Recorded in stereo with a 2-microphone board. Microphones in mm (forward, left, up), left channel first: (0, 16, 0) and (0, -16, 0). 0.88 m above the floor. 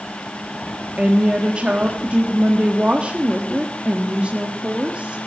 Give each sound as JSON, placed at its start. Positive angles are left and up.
{"t": 1.0, "sound": "a woman speaking", "side_deg": -35, "distance_m": 1.6}